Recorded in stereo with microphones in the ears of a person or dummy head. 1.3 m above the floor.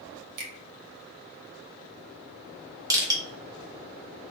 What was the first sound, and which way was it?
A finger snap, 50° right (ahead or behind).